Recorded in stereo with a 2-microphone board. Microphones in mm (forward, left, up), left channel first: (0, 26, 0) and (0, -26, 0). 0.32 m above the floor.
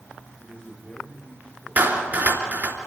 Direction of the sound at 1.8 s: 40° right (ahead or behind).